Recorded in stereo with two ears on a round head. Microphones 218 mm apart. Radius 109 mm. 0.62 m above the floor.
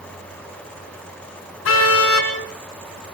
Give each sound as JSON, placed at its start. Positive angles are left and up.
{"t": 1.6, "sound": "a car horn", "side_deg": 60, "distance_m": 4.5}